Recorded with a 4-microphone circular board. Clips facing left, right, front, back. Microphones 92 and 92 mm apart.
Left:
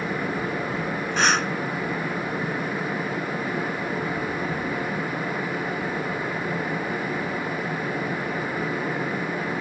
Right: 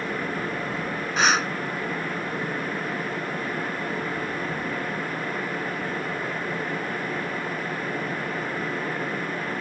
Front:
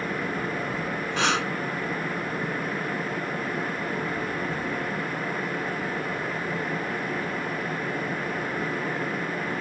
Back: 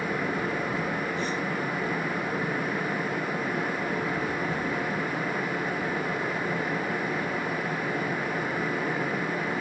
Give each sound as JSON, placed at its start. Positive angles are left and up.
{"t": 1.2, "sound": "breathing", "azimuth_deg": -5}